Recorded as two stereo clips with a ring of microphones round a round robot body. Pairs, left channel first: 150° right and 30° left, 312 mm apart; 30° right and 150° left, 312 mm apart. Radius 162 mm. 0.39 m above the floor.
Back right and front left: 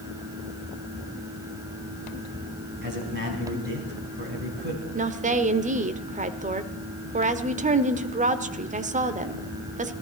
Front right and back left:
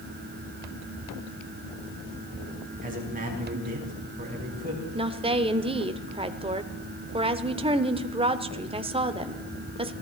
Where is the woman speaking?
85° left, 1.0 m.